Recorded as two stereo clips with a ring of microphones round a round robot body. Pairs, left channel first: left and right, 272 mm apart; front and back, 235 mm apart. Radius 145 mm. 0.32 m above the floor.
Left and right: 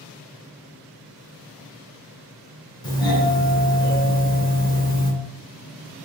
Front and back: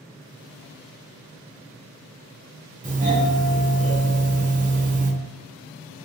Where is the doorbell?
155° left, 1.6 m.